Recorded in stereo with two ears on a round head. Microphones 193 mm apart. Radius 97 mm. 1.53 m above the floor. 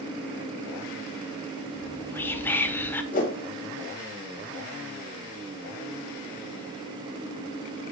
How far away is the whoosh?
About 1.8 m.